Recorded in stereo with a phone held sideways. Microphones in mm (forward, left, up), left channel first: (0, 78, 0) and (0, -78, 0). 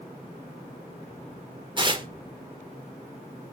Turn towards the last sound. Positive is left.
turn(degrees=-30)  # may be behind; listen again after turning